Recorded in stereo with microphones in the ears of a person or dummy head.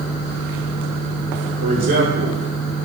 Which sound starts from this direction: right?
A man speaking, at 1.6 s.